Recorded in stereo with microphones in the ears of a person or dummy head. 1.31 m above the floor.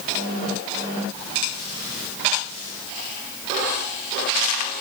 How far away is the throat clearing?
No throat clearing in this recording.